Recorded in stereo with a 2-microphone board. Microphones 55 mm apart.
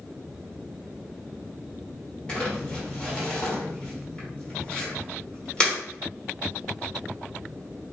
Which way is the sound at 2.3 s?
15° left (ahead or behind).